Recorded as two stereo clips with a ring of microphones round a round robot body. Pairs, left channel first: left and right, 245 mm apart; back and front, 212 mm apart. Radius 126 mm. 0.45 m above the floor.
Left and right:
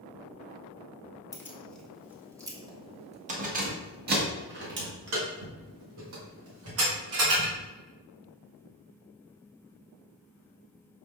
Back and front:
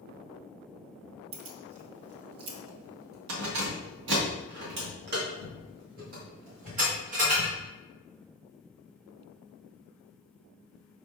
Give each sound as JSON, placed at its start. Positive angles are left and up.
{"t": 1.3, "sound": "keys jangling", "azimuth_deg": 15, "distance_m": 1.5}